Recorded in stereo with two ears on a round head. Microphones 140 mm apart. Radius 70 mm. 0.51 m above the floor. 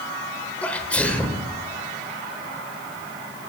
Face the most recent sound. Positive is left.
turn(degrees=10)  # may be behind; listen again after turning